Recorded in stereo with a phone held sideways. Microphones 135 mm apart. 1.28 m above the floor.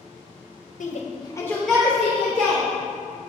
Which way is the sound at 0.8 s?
70° left (ahead or behind).